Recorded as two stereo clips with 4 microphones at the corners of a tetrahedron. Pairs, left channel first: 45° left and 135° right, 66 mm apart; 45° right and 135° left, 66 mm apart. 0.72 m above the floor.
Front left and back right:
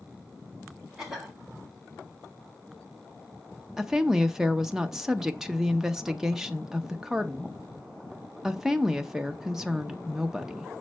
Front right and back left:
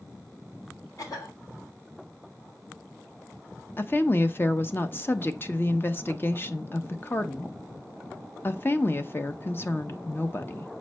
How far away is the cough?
About 2.5 m.